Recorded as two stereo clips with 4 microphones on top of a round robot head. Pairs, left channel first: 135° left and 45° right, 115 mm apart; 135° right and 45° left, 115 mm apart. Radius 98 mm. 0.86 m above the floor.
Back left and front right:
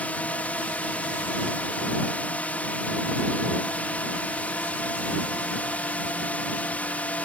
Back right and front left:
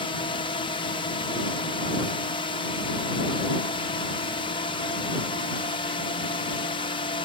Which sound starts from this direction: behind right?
A drone, at 0.0 s.